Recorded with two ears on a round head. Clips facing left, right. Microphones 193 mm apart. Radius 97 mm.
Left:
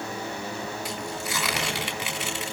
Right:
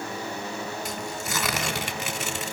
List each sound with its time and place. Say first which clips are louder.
0.8 s tearing paper: even; 40° right (ahead or behind), 4 m